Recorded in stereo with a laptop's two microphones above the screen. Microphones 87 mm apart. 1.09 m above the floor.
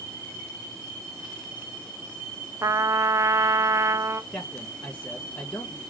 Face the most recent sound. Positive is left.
turn(degrees=20)  # may be behind; listen again after turning